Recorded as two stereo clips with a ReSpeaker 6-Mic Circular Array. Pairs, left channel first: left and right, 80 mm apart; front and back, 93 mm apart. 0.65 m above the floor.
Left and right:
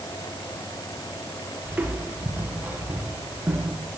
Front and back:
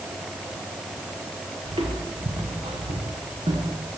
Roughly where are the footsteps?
Behind.